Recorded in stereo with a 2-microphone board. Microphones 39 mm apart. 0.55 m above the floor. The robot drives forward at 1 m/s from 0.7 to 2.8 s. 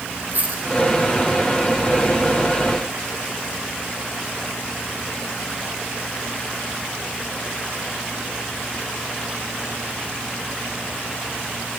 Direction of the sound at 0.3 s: 50° right (ahead or behind).